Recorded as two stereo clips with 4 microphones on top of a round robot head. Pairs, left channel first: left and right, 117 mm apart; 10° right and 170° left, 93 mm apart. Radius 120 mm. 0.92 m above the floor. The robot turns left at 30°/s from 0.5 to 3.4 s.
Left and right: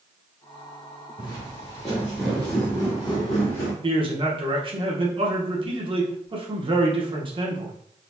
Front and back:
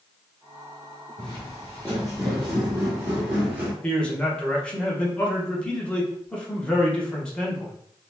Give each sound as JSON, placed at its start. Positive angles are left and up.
{"t": 1.2, "sound": "footsteps", "azimuth_deg": -40, "distance_m": 1.0}
{"t": 3.8, "sound": "a man speaking", "azimuth_deg": -85, "distance_m": 1.1}